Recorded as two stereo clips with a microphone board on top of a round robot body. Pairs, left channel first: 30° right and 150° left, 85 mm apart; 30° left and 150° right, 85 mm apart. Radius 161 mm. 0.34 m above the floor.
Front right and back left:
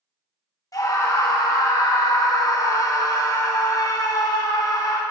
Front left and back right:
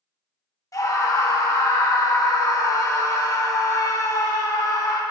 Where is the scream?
5° right, 1.8 m.